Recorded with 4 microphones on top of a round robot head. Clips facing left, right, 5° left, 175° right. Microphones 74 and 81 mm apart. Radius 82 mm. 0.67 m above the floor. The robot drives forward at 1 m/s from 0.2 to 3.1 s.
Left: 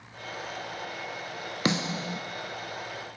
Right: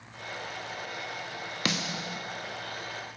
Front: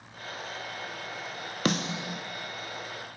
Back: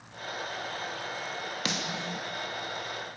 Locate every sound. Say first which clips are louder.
1.6 s a snare drum: left 5 dB, front 7 dB; 35° left, 0.8 m; by 2.2 s 100° left, 0.6 m